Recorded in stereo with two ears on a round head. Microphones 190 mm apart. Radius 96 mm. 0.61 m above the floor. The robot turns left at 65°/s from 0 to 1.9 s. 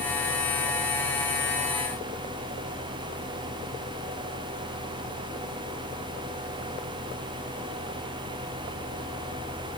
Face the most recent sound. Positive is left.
No sound to turn to.